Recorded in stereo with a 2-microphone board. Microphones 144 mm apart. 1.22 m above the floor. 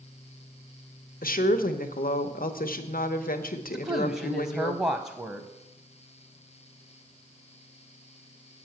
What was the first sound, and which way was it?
A woman speaking, 80° left.